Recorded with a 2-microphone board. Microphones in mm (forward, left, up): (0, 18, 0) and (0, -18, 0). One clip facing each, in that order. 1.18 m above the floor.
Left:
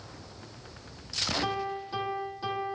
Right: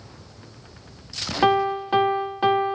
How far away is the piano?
About 0.9 m.